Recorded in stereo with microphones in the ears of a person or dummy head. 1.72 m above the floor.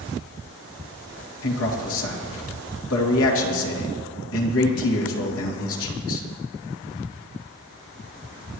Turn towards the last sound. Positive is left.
turn(degrees=80)